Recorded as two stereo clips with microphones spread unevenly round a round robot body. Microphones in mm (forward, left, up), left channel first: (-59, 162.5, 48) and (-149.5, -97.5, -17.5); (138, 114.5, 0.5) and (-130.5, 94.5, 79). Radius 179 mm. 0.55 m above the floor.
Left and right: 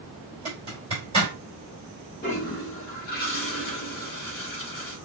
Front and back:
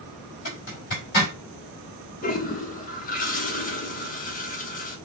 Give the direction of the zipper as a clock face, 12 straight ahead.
1 o'clock.